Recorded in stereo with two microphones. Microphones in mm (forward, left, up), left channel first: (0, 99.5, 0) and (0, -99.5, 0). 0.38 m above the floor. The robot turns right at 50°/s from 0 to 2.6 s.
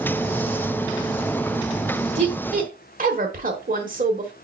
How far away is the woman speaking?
About 1.1 m.